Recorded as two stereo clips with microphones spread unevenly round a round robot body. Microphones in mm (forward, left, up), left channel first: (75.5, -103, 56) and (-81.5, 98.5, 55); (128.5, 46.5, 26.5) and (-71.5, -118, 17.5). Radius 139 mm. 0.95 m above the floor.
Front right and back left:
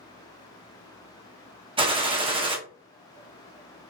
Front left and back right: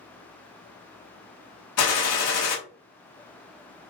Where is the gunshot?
60° left, 0.7 m.